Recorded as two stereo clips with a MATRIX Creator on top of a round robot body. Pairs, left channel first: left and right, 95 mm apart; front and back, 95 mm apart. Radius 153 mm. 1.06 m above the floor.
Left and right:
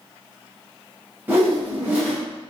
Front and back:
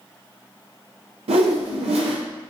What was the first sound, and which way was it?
A whoosh, 160° right.